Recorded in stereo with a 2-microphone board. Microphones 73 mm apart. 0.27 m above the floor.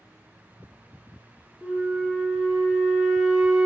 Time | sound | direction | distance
1.6 | a flute | 15° right (ahead or behind) | 0.7 m